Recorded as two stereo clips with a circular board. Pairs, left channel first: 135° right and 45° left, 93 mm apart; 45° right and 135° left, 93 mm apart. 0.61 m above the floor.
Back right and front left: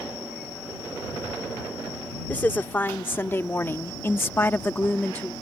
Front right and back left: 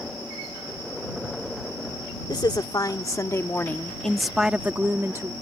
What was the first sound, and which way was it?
A woman speaking, 70° right.